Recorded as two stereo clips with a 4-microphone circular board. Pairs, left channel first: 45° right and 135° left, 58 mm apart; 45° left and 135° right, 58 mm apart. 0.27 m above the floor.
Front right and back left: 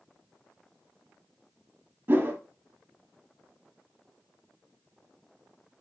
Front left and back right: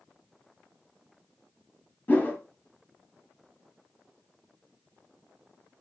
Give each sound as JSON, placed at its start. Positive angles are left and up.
{"t": 2.1, "sound": "a whoosh", "azimuth_deg": 90, "distance_m": 0.7}